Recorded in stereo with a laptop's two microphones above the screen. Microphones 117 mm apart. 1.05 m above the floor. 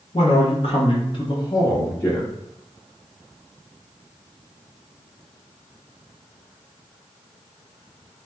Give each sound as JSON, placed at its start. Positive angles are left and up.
{"t": 0.1, "sound": "a man speaking", "side_deg": 55, "distance_m": 1.0}